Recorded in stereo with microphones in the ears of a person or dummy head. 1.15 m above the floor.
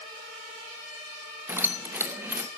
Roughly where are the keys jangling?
Centre.